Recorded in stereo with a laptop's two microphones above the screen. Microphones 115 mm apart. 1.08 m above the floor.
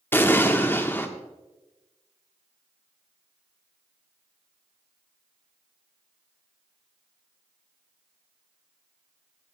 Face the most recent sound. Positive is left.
turn(degrees=15)  # may be behind; listen again after turning